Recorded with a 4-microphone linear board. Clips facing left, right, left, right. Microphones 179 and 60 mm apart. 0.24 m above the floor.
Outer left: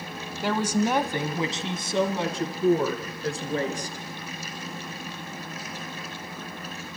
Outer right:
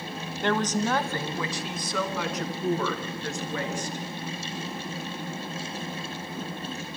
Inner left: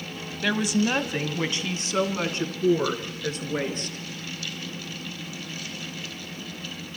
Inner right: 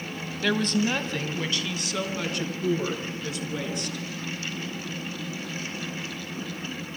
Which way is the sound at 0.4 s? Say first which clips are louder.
Outer left 1 dB, inner left 1 dB; 5° left (ahead or behind).